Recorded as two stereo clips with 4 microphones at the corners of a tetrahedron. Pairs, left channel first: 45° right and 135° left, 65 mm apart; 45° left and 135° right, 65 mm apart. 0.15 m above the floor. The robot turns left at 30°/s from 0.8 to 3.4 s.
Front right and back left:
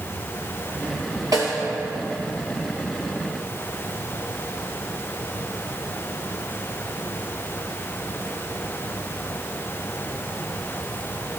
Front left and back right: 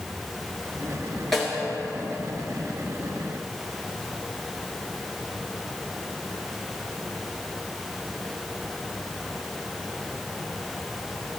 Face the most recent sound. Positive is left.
turn(degrees=70)